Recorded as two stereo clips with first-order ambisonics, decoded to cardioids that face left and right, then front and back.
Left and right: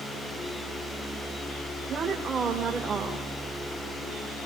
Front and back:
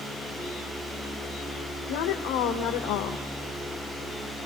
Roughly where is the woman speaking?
Ahead.